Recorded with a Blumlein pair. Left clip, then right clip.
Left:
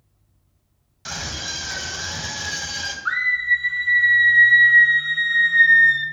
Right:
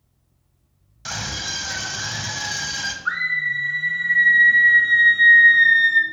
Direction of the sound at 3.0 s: 5° left.